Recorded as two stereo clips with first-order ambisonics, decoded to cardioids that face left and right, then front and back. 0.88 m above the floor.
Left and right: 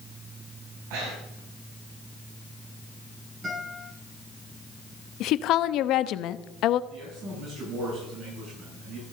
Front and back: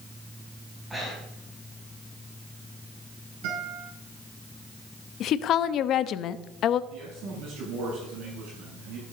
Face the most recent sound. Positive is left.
turn(degrees=-145)